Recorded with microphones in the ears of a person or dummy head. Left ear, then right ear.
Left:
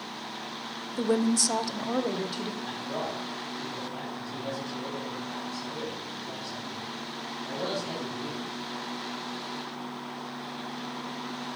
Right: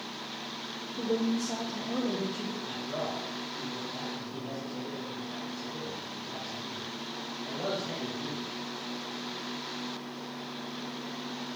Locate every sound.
0.9 s a woman speaking: 35° left (ahead or behind), 0.6 m; by 2.5 s 50° left (ahead or behind), 1.4 m
2.6 s a man speaking: 30° left (ahead or behind), 3 m